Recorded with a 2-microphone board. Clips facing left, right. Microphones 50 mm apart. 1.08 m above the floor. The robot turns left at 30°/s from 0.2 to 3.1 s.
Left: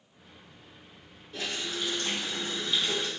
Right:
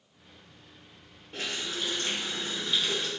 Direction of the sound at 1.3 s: 130° right.